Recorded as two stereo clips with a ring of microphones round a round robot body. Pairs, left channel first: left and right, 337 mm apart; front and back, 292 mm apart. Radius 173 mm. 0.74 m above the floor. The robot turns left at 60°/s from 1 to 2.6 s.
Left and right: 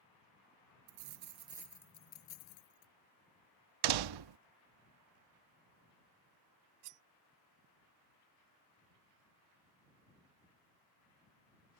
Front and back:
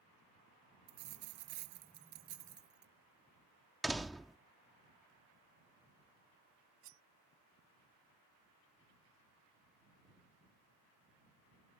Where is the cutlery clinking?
125° right.